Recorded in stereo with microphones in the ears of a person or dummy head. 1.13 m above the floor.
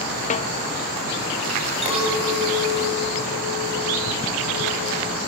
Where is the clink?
30° right (ahead or behind), 5 m.